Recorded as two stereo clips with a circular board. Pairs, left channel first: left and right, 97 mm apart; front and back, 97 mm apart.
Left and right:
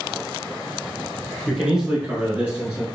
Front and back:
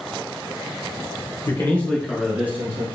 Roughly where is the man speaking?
Ahead.